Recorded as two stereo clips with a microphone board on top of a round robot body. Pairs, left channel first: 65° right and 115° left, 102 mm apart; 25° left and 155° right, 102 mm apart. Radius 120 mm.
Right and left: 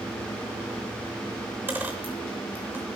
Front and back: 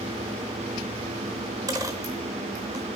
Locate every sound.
1.7 s a dropped coin: 170° left, 0.7 m